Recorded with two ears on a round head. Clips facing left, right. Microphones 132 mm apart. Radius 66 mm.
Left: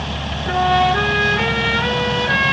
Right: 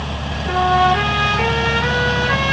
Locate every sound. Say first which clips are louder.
0.5 s a trumpet: right 1 dB; 50° left (ahead or behind), 5.5 m